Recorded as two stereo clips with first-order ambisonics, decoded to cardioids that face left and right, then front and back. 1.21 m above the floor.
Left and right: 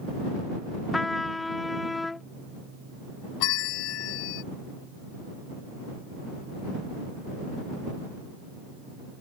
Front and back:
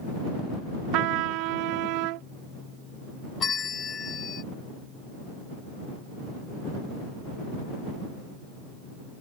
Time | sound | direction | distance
0.9 | a trumpet | 170° left | ?
3.4 | a bell | 65° left | ?